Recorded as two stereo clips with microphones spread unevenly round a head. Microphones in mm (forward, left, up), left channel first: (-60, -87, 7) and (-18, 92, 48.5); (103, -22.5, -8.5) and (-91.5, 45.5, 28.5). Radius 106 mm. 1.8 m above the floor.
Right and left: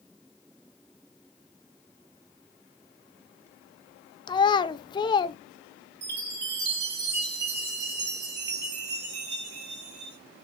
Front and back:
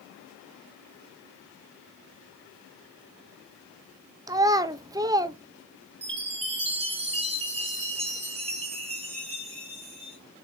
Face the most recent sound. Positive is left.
turn(degrees=100)